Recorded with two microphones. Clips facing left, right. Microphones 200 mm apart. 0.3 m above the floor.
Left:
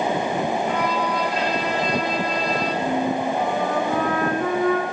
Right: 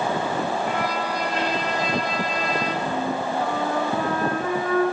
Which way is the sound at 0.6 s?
50° right (ahead or behind).